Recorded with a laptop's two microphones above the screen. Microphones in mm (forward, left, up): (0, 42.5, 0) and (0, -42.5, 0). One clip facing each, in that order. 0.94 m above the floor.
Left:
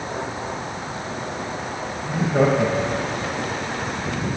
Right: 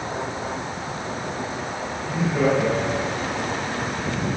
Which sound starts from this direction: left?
Laughter, at 2.0 s.